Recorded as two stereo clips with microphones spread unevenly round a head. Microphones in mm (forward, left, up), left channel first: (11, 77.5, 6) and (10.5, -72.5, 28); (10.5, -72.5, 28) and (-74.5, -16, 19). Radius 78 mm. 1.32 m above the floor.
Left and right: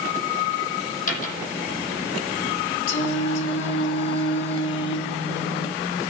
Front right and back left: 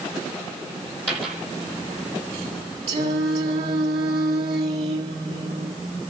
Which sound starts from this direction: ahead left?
A dropped coin, at 1.1 s.